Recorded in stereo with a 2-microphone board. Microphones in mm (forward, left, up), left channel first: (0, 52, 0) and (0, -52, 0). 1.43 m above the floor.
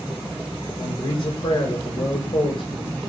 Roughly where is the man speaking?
Left.